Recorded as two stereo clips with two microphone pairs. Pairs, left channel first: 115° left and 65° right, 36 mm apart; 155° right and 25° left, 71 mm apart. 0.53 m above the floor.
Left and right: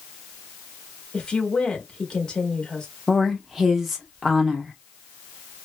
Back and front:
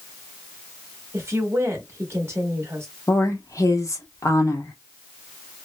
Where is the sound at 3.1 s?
150° right, 0.9 m.